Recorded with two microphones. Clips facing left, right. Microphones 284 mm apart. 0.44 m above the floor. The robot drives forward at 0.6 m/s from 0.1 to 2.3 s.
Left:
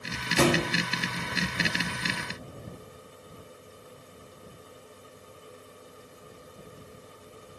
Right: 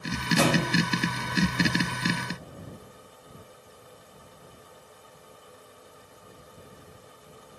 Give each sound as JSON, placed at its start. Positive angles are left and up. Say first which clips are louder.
{"t": 0.4, "sound": "a thud", "louder": "left 1 dB", "side_deg": 30, "distance_m": 1.2}